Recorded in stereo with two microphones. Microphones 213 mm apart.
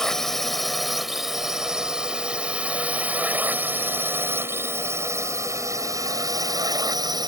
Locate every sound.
0.0 s a drone: 5° left (ahead or behind); by 7.3 s 20° right (ahead or behind)